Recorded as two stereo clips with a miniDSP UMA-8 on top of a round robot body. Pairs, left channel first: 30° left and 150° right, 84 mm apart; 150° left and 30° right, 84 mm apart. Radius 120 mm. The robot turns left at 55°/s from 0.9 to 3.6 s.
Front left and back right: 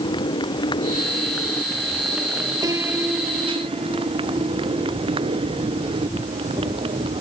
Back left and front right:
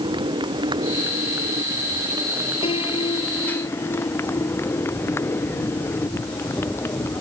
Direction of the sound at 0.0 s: Straight ahead.